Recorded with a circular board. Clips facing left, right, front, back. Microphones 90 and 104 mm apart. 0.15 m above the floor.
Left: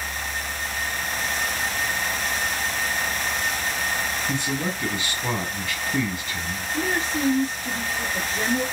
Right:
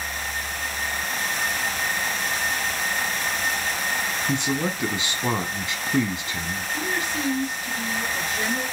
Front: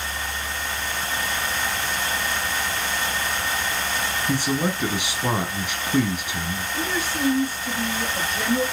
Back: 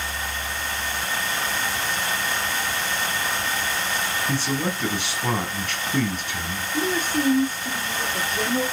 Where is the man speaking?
55° right, 1.1 m.